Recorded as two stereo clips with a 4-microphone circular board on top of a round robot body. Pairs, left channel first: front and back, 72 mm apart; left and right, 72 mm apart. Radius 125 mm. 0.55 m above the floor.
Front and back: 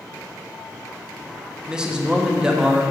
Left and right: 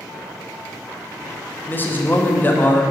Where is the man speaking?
115° left, 1.1 m.